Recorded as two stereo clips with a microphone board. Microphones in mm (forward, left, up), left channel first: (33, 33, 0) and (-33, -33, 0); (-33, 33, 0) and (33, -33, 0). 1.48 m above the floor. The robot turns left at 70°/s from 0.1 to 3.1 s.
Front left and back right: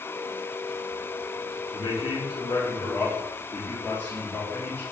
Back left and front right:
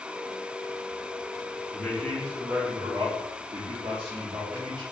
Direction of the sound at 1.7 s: 75° left.